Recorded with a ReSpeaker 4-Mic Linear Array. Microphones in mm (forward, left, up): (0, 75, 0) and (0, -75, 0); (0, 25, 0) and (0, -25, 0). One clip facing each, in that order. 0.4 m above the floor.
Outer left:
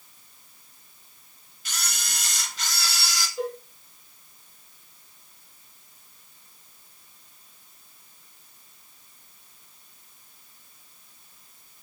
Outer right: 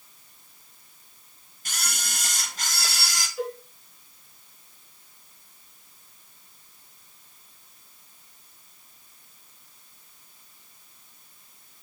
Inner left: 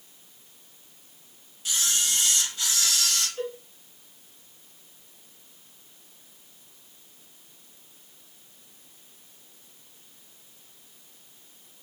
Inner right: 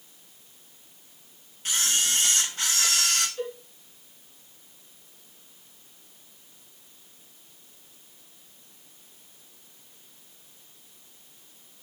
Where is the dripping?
No dripping in this recording.